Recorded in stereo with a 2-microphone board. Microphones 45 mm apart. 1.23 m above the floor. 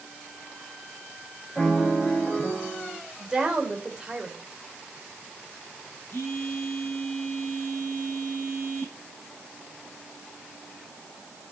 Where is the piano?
20° left (ahead or behind), 6.5 m.